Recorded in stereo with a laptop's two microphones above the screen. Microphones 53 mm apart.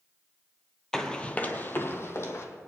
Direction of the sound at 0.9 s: 5° left (ahead or behind).